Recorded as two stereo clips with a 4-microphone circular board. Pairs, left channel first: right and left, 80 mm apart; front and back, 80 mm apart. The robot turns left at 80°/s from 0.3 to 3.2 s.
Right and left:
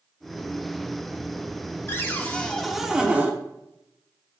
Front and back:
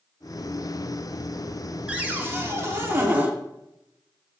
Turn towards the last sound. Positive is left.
turn(degrees=140)